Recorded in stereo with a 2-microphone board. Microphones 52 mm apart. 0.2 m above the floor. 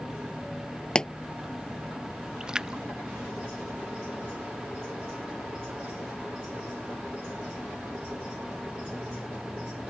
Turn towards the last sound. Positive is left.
turn(degrees=-15)  # may be behind; listen again after turning